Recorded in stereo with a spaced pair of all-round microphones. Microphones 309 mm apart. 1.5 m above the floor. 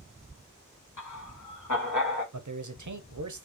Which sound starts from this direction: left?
Laughter, at 1.0 s.